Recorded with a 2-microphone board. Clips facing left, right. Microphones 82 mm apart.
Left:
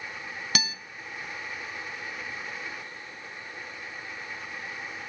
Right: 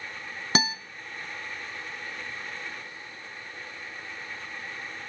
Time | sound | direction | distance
0.6 | a guitar | 30° right (ahead or behind) | 0.9 m